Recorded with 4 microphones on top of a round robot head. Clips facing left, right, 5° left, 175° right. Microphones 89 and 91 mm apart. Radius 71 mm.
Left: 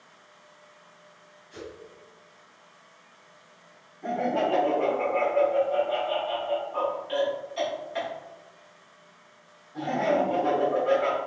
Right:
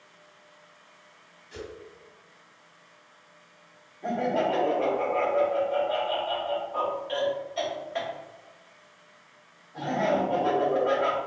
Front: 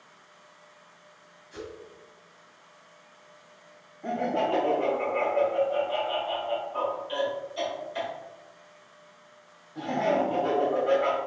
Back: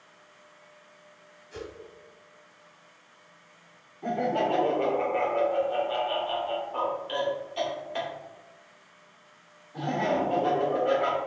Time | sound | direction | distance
1.5 | a whoosh | 125° right | 1.0 m
4.0 | laughter | straight behind | 1.8 m